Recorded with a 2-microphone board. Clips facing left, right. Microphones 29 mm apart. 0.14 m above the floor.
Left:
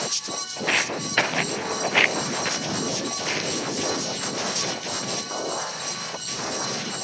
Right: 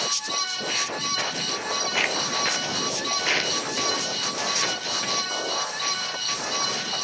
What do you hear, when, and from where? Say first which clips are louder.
0.6 s footsteps: left 3 dB; 60° left (ahead or behind), 2 m; by 7.0 s 35° right (ahead or behind), 8 m